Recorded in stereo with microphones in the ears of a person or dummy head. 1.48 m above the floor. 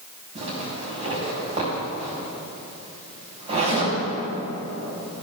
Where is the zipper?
30° right (ahead or behind), 4 m.